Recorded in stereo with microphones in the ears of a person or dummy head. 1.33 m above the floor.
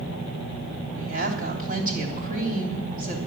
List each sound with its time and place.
0.9 s a woman speaking: 50° right (ahead or behind), 3.5 m